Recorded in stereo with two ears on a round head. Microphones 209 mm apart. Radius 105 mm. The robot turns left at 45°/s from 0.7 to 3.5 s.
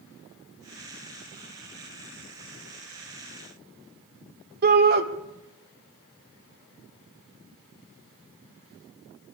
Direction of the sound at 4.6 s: 45° right (ahead or behind).